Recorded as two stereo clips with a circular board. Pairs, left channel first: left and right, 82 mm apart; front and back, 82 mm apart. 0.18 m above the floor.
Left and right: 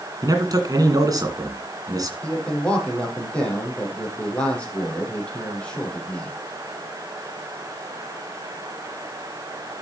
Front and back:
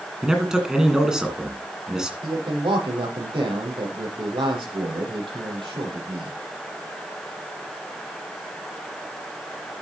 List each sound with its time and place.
0.2 s a man speaking: 100° right, 1.9 m
2.2 s a man speaking: 165° left, 6 m